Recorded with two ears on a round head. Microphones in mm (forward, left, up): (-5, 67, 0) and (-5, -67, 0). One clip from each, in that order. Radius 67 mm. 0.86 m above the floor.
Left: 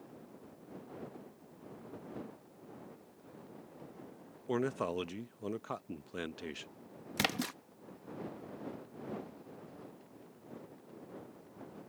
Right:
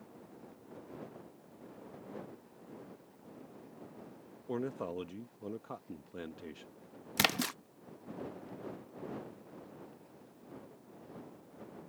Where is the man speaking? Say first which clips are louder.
Left 4 dB; 50° left (ahead or behind).